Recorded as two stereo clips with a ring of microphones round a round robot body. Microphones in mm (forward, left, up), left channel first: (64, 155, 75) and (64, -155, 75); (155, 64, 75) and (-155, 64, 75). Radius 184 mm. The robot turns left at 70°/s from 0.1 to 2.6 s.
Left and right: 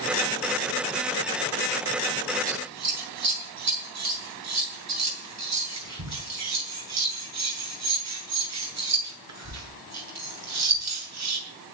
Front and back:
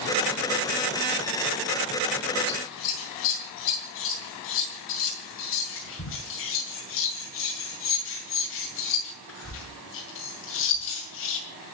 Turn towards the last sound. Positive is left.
turn(degrees=-55)